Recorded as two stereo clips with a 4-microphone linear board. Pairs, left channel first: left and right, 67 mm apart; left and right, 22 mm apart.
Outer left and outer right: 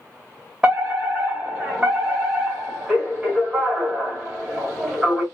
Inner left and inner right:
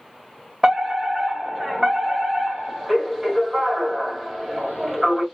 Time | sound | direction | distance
0.6 | a fire alarm | 10° right (ahead or behind) | 1.9 m